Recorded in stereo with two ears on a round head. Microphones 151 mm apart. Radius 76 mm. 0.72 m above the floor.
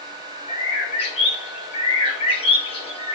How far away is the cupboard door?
I don't hear a cupboard door.